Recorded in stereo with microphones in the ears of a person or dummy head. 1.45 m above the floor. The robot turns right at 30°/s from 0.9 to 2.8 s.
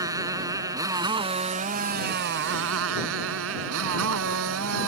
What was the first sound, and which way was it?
A motorcycle, 165° right.